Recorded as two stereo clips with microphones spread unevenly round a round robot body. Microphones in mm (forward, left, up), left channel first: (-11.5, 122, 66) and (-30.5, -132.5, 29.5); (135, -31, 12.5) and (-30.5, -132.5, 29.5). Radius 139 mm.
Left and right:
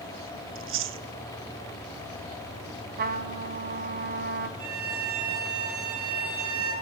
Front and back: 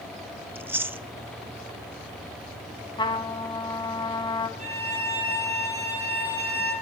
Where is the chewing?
65° right, 0.6 m.